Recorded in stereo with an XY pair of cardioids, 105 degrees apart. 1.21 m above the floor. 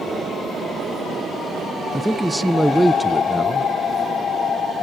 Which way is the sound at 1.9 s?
5° right.